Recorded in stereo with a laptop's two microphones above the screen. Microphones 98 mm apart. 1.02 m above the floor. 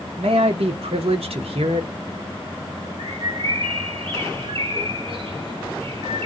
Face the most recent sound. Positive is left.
turn(degrees=-65)  # may be behind; listen again after turning